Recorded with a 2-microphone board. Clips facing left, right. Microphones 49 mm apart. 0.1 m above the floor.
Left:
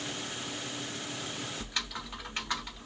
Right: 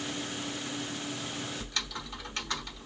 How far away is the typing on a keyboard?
About 1.3 m.